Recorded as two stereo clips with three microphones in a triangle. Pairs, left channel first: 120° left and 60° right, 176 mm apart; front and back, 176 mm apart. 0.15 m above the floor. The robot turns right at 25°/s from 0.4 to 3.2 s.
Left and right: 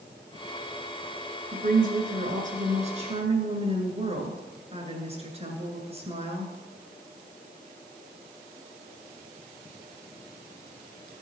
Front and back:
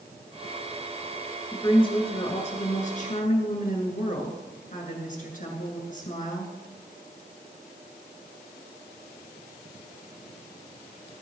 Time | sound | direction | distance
1.5 | a woman speaking | 60° right | 2 m